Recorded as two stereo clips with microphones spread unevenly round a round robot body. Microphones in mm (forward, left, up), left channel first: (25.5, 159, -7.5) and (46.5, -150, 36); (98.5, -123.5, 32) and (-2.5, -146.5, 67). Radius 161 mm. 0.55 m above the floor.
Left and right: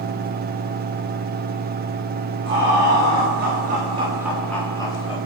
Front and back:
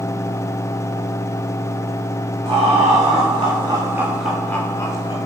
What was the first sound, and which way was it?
Laughter, 140° right.